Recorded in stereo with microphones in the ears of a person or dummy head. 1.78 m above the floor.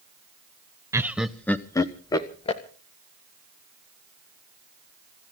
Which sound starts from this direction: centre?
Laughter, at 0.9 s.